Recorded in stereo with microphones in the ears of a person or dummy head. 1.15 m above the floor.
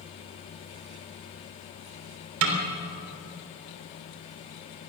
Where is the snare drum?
80° right, 3 m.